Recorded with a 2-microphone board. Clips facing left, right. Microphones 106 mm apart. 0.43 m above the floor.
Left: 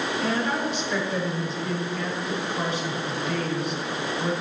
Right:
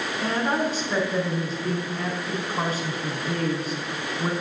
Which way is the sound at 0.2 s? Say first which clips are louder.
Right 3 dB; 40° right (ahead or behind).